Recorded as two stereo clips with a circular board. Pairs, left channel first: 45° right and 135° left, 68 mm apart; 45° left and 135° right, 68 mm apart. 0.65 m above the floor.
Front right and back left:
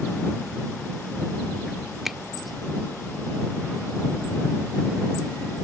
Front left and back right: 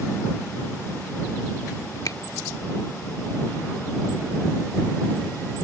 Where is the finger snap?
50° left.